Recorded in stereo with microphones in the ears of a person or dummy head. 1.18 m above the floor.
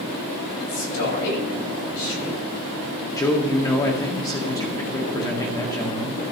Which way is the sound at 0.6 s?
75° left (ahead or behind).